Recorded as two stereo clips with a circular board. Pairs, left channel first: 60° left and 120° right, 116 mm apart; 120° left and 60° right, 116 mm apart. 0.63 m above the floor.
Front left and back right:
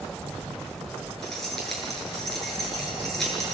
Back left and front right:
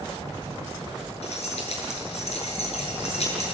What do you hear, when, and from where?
1.2 s keys jangling: 145° left, 8 m